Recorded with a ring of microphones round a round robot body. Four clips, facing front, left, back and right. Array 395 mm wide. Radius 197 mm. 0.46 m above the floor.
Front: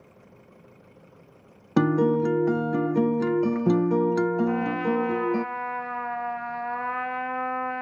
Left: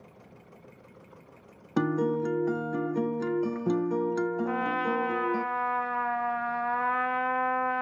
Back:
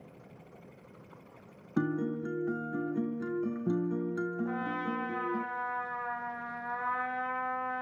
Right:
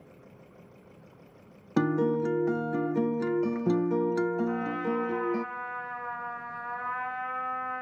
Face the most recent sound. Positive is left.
turn(degrees=55)